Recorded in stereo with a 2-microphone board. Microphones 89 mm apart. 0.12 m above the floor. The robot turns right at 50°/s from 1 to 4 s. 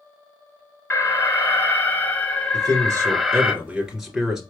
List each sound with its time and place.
0.9 s an alarm: 25° left (ahead or behind), 0.9 m; by 3.5 s 10° right (ahead or behind), 0.9 m
2.5 s a man speaking: 80° right, 2 m; by 4.4 s 5° right, 2 m